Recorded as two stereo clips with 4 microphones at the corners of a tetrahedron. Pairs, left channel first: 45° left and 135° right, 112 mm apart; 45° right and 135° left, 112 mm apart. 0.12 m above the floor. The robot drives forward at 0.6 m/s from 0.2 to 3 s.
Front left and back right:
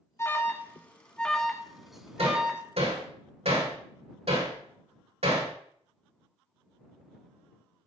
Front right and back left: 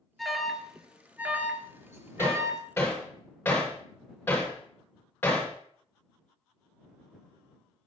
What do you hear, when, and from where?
0.2 s an alarm: 40° left, 1.7 m; by 2.6 s 155° left, 1.9 m
2.2 s hammering: 115° right, 6 m; by 5.5 s 120° right, 6 m